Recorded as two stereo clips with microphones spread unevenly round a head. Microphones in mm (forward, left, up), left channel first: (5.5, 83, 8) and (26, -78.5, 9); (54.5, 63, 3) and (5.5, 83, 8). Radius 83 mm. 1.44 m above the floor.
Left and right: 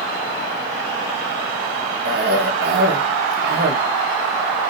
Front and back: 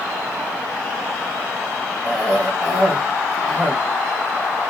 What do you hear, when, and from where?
2.0 s a cough: 120° right, 1.1 m